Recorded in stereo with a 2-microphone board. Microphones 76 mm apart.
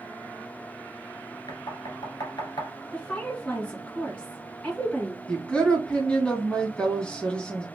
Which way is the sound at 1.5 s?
65° left (ahead or behind).